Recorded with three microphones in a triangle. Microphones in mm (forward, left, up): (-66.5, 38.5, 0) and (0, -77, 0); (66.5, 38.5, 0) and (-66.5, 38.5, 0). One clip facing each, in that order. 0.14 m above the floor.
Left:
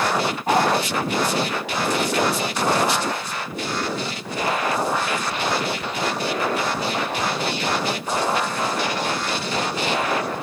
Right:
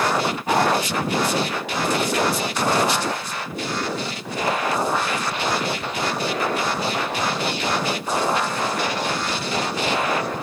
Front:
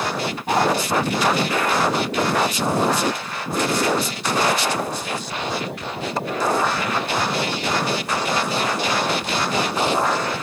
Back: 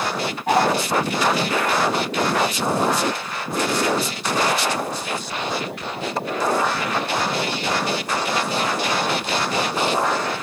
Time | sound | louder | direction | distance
0.5 | a dog barking | left 1 dB, back 2 dB | 165° left | 9.5 m